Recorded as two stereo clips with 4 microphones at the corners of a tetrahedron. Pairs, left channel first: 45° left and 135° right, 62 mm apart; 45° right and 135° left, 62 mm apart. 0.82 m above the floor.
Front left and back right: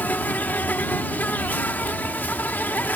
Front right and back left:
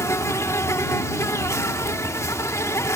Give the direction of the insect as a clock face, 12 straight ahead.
12 o'clock.